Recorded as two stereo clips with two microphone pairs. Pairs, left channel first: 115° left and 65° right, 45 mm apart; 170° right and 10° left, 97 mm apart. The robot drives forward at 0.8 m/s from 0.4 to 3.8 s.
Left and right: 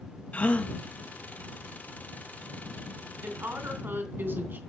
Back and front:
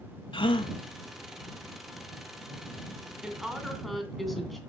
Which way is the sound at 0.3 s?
165° left.